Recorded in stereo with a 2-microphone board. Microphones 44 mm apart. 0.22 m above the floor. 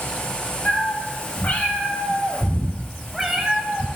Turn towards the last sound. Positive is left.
turn(degrees=-20)  # may be behind; listen again after turning